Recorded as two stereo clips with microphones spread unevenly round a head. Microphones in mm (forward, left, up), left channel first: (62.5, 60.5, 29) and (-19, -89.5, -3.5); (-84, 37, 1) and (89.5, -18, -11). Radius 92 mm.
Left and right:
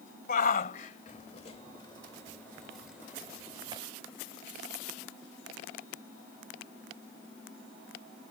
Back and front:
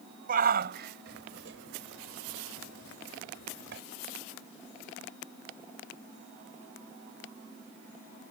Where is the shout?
25° left; by 3.8 s 55° right.